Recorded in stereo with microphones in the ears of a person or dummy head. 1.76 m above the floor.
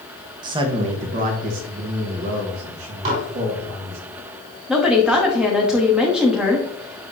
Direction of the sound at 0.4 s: 25° right (ahead or behind).